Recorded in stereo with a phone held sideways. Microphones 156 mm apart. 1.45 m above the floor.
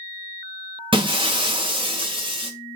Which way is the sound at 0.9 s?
30° right (ahead or behind).